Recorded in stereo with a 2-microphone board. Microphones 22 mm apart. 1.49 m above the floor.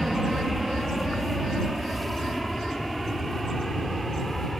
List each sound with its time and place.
0.0 s an aircraft: 5° right (ahead or behind); by 4.6 s 15° left (ahead or behind)